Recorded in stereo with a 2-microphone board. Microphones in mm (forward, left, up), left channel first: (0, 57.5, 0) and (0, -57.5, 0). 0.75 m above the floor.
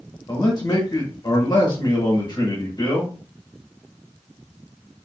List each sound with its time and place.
0.3 s a man speaking: 40° left (ahead or behind), 1.1 m